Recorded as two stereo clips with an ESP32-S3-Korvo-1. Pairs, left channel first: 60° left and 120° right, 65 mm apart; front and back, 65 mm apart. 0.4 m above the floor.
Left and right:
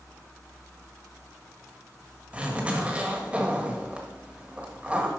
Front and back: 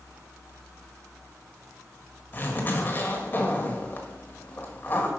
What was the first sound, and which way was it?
A zipper, 55° right.